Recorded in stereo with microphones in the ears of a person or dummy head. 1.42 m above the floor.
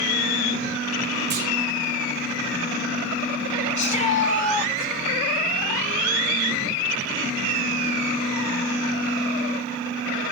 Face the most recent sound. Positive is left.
turn(degrees=35)  # may be behind; listen again after turning